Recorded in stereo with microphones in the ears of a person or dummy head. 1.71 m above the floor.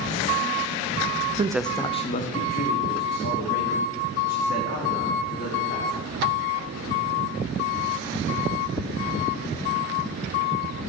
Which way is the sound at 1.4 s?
30° right (ahead or behind).